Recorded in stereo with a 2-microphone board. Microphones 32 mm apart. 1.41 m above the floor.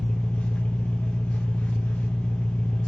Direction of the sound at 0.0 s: 55° left (ahead or behind).